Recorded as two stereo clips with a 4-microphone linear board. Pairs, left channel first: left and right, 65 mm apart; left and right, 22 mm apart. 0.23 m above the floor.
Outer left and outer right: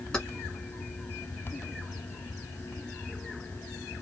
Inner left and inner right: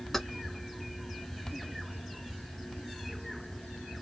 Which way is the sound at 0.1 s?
10° left (ahead or behind).